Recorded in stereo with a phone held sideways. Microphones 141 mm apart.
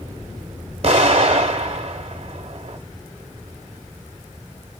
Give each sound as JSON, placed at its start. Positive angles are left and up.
{"t": 0.8, "sound": "an explosion", "side_deg": -50, "distance_m": 1.0}